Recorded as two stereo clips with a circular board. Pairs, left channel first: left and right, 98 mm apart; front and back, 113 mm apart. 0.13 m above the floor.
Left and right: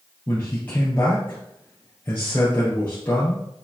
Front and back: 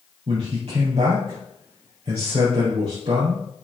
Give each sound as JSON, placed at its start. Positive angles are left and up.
{"t": 0.3, "sound": "a man speaking", "azimuth_deg": 155, "distance_m": 2.5}